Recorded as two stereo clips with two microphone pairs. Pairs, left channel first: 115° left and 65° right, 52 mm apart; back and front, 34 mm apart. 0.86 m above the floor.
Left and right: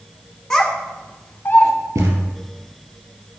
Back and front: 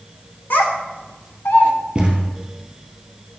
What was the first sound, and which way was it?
A child speaking, 170° right.